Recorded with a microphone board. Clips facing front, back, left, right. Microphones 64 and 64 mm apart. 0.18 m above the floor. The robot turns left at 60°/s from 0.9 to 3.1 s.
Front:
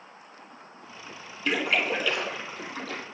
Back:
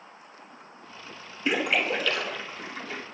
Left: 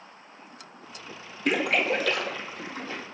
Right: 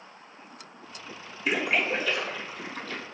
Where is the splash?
115° left, 1.2 m; by 3.0 s 20° left, 1.2 m.